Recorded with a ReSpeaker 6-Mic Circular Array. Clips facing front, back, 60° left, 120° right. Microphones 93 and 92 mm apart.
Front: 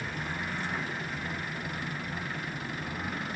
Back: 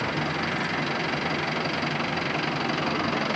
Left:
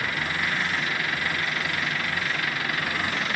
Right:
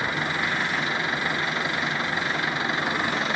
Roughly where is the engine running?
Behind.